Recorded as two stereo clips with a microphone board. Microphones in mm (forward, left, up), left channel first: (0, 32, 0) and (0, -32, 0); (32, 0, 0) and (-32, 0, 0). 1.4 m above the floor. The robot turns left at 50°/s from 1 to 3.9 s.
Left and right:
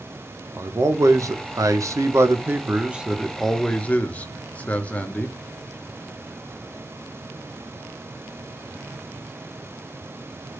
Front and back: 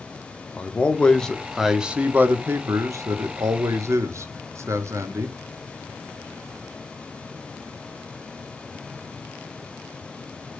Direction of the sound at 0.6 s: 65° right.